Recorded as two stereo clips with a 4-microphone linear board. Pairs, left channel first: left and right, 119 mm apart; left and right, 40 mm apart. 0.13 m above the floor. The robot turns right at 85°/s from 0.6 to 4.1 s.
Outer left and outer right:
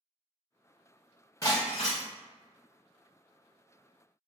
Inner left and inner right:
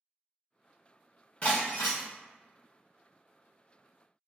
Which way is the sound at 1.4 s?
25° left.